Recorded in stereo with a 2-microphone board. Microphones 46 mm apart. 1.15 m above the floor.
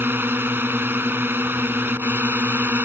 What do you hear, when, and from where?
0.0 s a drone: 50° right (ahead or behind)